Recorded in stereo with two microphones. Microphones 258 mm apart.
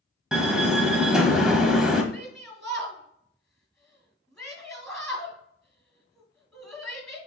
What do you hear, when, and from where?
0.3 s a door slam: centre (ahead or behind), 1.1 m
2.1 s a shout: centre (ahead or behind), 1.9 m